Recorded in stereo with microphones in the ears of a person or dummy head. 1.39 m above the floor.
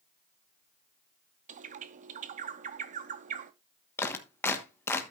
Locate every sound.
1.5 s a bird: 40° right (ahead or behind), 0.7 m
4.0 s a clap: 10° left (ahead or behind), 1.2 m